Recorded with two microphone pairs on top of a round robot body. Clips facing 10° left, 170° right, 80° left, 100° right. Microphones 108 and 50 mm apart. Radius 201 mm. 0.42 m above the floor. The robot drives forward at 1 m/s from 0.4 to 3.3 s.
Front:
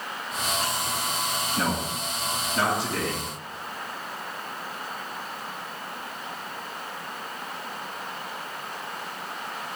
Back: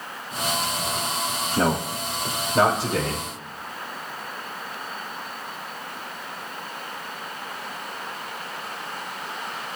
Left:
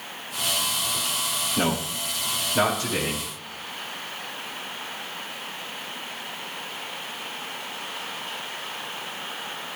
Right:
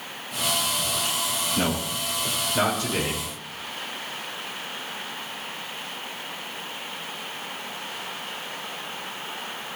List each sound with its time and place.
1.6 s a man speaking: 155° left, 2.0 m; by 3.3 s 170° left, 3.5 m